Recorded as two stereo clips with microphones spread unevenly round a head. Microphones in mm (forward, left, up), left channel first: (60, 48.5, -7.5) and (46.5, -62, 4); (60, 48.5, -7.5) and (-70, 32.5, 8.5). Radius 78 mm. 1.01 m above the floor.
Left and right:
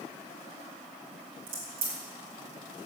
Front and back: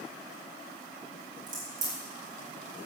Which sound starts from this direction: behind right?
A crack, at 1.5 s.